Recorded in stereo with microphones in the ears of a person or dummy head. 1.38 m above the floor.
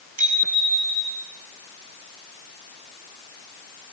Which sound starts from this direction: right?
A bicycle bell, at 0.2 s.